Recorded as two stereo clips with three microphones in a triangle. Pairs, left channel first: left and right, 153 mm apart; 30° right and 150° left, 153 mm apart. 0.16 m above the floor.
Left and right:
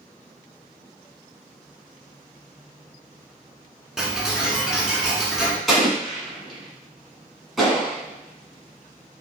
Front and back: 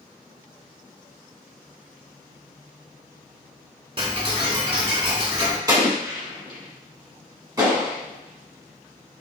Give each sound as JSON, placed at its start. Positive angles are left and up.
{"t": 4.0, "sound": "ticking", "azimuth_deg": -175, "distance_m": 0.9}
{"t": 5.7, "sound": "an explosion", "azimuth_deg": 180, "distance_m": 1.2}